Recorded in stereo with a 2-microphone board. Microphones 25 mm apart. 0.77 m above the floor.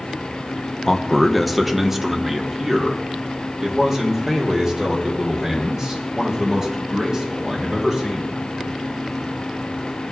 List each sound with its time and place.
0.9 s a man speaking: 15° left (ahead or behind), 0.6 m; by 8.4 s 25° right (ahead or behind), 5 m